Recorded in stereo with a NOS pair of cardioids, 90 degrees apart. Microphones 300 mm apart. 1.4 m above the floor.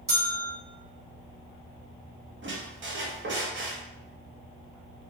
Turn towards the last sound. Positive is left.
turn(degrees=-40)